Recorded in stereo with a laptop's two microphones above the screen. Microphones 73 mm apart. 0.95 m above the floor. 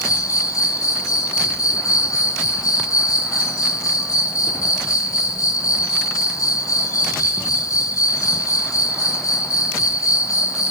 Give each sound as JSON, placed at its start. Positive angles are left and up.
{"t": 0.0, "sound": "an insect", "side_deg": 50, "distance_m": 0.8}